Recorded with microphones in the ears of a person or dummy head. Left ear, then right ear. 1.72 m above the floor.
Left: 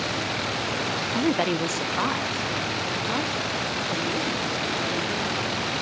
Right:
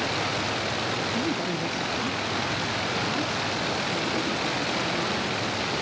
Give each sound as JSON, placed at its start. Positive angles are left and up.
{"t": 1.1, "sound": "a woman speaking", "side_deg": 25, "distance_m": 0.5}